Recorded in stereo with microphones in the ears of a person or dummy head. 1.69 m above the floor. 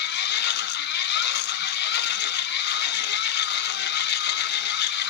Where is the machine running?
55° left (ahead or behind), 0.8 m.